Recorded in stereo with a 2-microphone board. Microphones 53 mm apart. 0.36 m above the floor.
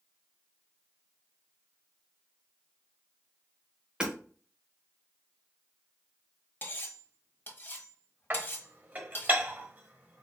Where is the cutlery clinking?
40° left (ahead or behind), 1.2 m.